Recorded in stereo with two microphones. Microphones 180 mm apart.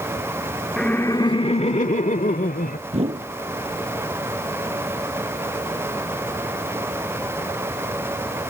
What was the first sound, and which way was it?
Laughter, centre (ahead or behind).